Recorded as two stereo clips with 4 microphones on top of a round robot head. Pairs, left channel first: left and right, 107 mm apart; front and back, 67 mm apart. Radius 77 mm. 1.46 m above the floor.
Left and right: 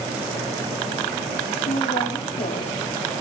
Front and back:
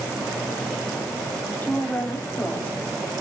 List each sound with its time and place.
1.6 s a woman speaking: 65° left, 4.5 m